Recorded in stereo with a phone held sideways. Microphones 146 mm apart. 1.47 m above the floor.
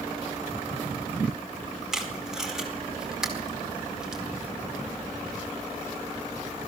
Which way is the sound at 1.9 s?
5° right (ahead or behind).